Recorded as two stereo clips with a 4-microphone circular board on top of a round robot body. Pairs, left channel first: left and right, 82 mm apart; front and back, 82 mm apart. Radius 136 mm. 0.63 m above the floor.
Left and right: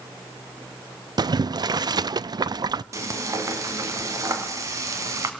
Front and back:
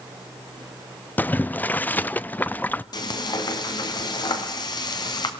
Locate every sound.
1.2 s boiling: 65° right, 0.5 m
2.9 s frying: 35° right, 1.8 m